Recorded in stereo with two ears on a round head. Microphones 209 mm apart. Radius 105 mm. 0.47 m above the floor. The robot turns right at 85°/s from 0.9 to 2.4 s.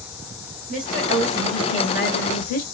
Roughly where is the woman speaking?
Ahead right.